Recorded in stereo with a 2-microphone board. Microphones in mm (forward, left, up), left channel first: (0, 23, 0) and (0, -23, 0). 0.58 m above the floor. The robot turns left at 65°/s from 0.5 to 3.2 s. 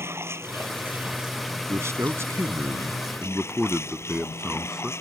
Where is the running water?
115° right; by 5.0 s 70° left.